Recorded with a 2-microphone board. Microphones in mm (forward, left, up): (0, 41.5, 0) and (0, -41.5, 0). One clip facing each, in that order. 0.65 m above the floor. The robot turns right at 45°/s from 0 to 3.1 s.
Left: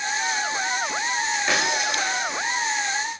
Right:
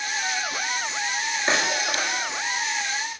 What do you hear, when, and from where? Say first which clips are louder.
1.5 s breaking glass: right 2 dB; 155° right, 7 m; by 2.3 s 115° right, 7 m